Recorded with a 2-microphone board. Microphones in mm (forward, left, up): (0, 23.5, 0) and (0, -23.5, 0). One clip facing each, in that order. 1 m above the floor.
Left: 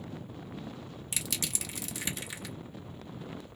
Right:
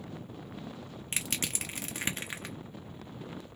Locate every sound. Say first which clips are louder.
1.1 s crushing: right 2 dB; 35° right (ahead or behind), 1.3 m